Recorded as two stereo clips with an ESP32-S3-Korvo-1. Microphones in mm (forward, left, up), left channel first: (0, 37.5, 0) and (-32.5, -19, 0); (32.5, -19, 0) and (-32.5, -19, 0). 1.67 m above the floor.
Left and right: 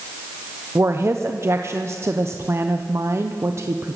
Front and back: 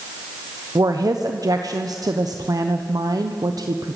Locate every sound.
0.8 s a woman speaking: 165° right, 1.2 m